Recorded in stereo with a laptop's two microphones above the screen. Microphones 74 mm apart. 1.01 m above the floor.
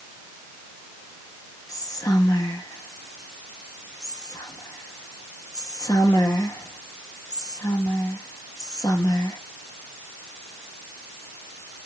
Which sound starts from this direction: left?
Whispering, at 1.7 s.